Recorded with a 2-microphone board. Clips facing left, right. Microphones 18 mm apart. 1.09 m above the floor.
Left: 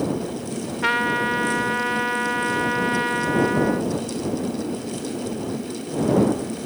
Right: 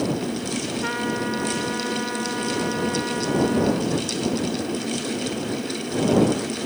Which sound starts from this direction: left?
A trumpet, at 0.8 s.